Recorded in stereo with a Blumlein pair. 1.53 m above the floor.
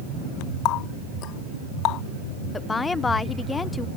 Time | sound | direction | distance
0.7 | a running tap | 35° left | ?
2.5 | a woman speaking | 10° left | ?